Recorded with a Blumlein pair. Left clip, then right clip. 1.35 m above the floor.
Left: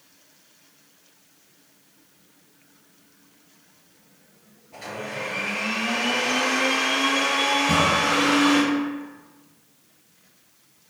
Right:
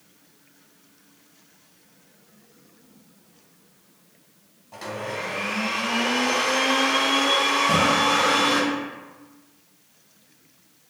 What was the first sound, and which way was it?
A blender, 35° right.